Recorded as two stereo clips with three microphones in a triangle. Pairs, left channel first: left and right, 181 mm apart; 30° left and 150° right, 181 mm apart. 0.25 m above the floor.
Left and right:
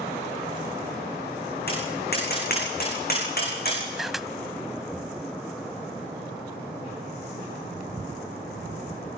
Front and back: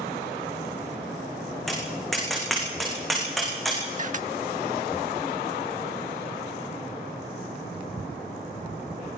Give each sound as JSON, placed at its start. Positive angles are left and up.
{"t": 1.7, "sound": "tapping", "azimuth_deg": 120, "distance_m": 8.5}
{"t": 4.0, "sound": "a camera shutter", "azimuth_deg": 180, "distance_m": 0.5}